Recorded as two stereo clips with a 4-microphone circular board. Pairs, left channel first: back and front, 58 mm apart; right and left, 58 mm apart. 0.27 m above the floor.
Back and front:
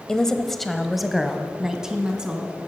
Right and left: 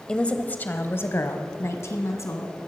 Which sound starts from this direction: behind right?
A woman speaking, at 0.1 s.